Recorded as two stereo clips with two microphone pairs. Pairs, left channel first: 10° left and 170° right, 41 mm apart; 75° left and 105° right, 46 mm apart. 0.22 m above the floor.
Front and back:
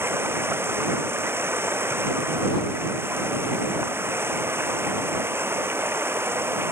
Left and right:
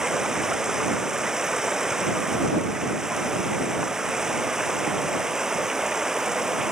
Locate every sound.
0.0 s running water: 175° left